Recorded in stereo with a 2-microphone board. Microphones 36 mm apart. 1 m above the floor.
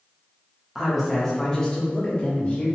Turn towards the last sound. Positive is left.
turn(degrees=40)  # may be behind; listen again after turning